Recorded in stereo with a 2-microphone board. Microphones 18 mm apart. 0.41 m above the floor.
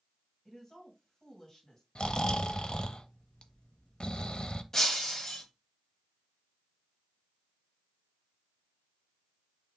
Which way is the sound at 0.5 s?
10° left (ahead or behind).